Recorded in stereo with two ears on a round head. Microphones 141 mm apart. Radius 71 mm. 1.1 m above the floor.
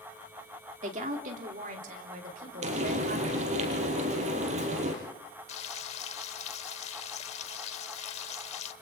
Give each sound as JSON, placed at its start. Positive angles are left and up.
{"t": 0.8, "sound": "a woman speaking", "side_deg": -45, "distance_m": 2.5}
{"t": 2.6, "sound": "frying", "side_deg": -45, "distance_m": 5.0}
{"t": 5.5, "sound": "frying", "side_deg": 40, "distance_m": 1.0}